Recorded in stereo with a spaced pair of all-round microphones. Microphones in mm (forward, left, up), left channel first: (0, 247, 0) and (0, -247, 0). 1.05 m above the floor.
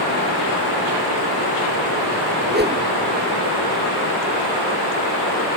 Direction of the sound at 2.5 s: 20° right (ahead or behind).